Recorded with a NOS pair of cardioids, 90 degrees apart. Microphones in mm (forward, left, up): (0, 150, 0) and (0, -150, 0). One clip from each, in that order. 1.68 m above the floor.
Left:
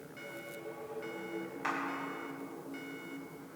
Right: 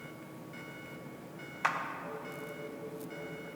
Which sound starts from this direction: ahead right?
A clap, at 1.6 s.